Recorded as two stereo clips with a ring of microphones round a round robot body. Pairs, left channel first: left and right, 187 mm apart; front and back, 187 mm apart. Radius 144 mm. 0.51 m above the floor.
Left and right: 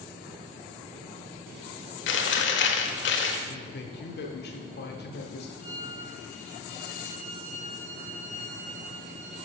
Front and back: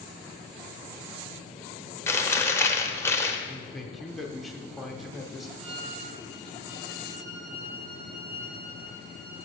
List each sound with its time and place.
2.1 s chewing: 75° left, 1.0 m
3.5 s a man speaking: 90° left, 1.2 m
5.6 s a violin: 110° right, 2.5 m